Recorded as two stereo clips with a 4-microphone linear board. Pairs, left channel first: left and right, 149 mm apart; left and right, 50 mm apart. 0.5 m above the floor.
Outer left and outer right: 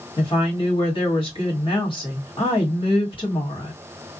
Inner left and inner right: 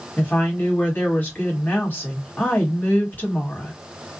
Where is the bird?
I don't hear a bird.